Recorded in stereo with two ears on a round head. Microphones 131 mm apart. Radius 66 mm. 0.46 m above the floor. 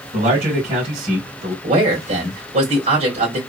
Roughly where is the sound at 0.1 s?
Right.